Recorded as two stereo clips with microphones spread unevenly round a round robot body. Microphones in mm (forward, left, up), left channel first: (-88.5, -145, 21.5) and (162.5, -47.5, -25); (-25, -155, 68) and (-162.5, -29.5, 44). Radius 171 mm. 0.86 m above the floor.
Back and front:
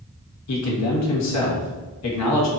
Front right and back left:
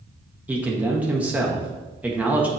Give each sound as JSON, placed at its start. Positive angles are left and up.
{"t": 0.5, "sound": "a man speaking", "azimuth_deg": -145, "distance_m": 1.3}